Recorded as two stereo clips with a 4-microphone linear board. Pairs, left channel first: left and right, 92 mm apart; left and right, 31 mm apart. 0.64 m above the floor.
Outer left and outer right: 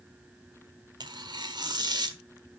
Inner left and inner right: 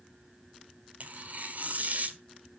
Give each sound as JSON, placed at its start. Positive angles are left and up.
{"t": 1.0, "sound": "tearing paper", "side_deg": -55, "distance_m": 1.1}